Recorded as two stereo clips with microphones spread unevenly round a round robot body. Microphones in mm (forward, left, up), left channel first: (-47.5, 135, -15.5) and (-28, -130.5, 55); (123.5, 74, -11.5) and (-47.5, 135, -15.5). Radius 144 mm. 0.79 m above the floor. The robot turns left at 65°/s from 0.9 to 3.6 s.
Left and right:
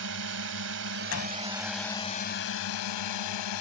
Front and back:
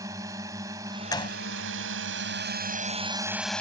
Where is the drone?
120° right; by 3.6 s 65° left.